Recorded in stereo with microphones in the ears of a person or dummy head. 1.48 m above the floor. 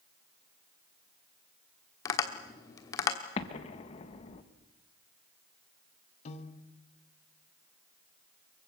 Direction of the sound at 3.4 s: 35° left (ahead or behind).